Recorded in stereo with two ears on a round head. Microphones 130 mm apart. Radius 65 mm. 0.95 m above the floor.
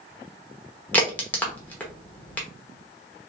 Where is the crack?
10° left (ahead or behind), 0.8 m.